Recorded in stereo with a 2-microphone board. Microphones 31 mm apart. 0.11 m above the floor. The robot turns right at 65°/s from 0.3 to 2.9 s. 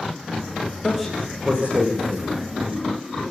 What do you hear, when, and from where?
0.8 s a man speaking: 10° left (ahead or behind), 7.5 m; by 2.4 s 80° right, 7.5 m